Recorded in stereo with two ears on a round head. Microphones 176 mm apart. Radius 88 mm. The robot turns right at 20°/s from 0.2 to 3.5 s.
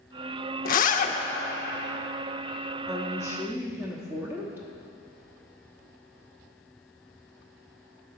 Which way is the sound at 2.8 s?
20° right (ahead or behind).